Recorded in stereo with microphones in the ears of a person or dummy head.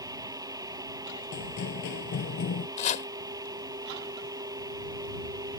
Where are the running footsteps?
45° left (ahead or behind).